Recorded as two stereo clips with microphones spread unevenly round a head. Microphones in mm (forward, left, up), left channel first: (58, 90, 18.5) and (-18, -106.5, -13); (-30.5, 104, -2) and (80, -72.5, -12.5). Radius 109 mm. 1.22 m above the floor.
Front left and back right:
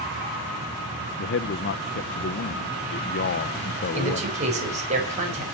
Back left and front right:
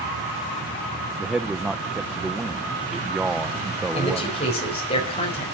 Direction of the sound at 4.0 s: 175° right.